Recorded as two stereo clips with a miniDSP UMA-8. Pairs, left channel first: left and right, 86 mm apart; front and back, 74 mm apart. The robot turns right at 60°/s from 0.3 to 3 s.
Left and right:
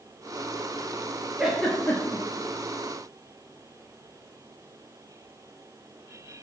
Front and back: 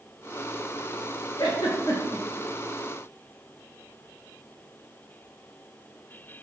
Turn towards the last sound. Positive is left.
turn(degrees=85)